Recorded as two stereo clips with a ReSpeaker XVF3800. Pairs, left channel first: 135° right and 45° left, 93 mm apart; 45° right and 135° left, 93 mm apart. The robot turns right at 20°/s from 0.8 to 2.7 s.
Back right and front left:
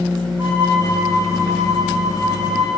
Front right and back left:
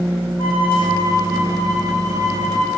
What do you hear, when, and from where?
0.4 s a violin: 20° right, 5.5 m; by 2.8 s 20° left, 5.5 m